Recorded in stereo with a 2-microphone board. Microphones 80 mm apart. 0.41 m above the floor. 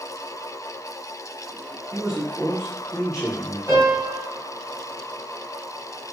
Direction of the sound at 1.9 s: 5° right (ahead or behind).